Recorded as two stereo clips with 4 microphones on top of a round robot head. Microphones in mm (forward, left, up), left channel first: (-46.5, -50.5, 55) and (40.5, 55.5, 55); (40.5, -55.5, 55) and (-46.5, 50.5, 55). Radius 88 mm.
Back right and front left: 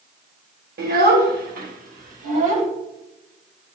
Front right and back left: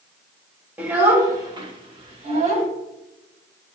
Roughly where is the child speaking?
Ahead left.